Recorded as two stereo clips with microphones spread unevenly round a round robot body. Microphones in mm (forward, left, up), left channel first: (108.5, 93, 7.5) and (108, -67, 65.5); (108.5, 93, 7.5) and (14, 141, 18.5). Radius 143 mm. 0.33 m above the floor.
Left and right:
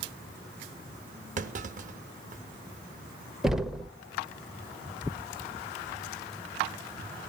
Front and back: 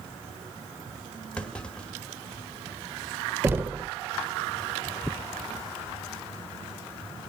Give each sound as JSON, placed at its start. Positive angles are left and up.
{"t": 1.4, "sound": "a clunk", "azimuth_deg": -85, "distance_m": 1.1}
{"t": 3.4, "sound": "knocking", "azimuth_deg": 110, "distance_m": 0.9}